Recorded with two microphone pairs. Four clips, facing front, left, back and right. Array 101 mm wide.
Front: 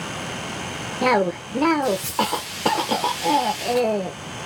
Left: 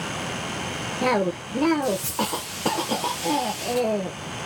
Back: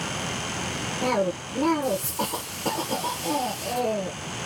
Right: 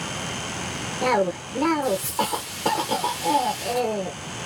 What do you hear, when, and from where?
1.0 s a cough: 15° right, 0.8 m